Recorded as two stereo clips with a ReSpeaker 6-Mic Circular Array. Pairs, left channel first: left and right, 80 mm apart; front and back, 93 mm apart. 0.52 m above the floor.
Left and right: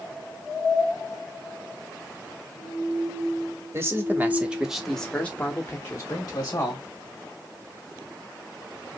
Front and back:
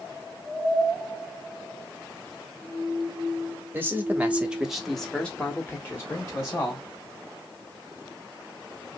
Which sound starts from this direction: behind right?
A man speaking, at 3.7 s.